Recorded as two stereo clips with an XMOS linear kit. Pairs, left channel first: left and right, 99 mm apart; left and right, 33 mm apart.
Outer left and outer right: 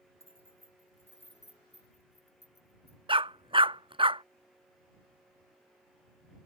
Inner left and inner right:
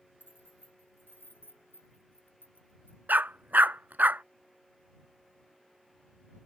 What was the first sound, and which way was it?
Keys jangling, 85° left.